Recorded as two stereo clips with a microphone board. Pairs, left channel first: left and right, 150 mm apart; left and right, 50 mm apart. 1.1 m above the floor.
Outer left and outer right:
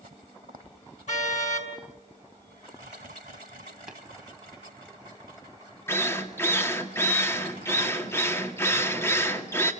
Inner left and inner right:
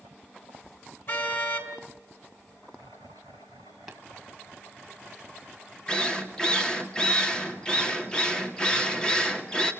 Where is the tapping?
5° right (ahead or behind), 3.5 m.